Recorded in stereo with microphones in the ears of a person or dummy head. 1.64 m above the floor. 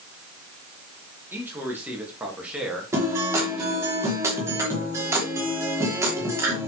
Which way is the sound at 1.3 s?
15° right (ahead or behind).